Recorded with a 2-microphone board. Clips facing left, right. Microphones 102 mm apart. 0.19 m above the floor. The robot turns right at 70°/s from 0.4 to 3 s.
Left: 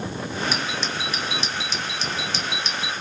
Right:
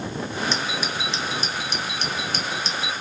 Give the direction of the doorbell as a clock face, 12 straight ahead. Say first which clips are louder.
Even; 6 o'clock.